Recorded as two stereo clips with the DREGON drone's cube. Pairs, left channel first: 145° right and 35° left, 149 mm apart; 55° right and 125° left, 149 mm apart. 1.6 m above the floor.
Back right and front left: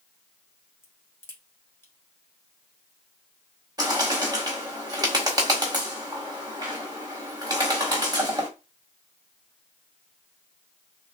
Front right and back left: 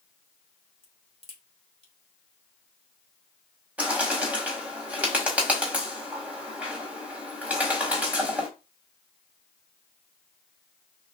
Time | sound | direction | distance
0.8 | a crack | 80° right | 1.4 m
3.8 | a bird | 55° left | 1.6 m